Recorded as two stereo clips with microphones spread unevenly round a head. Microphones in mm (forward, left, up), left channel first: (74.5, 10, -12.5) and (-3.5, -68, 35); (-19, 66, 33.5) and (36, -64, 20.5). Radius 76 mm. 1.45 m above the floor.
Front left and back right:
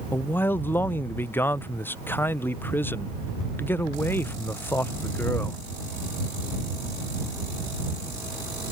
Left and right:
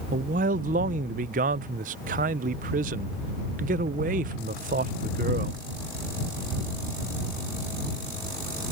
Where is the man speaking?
35° right.